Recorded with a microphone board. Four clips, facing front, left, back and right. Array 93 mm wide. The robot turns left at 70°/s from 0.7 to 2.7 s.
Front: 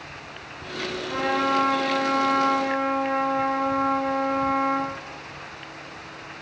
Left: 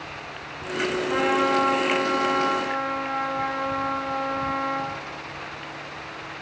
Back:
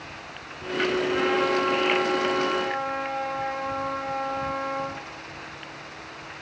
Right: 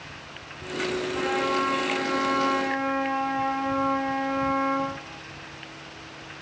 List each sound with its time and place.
1.1 s a trumpet: 95° left, 9.5 m; by 4.9 s 20° right, 9.5 m